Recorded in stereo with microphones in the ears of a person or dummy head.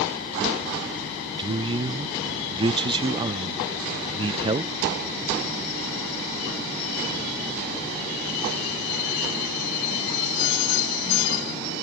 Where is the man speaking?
20° right (ahead or behind), 0.5 m.